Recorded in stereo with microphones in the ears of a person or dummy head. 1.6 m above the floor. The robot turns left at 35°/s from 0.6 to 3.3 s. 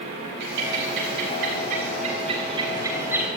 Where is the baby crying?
No baby crying in this recording.